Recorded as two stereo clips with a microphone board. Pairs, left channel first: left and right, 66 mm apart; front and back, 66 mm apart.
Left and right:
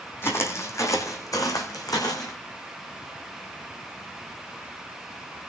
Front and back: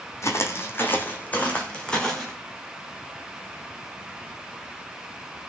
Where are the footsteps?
40° left, 2.5 m; by 2.4 s 80° left, 3 m.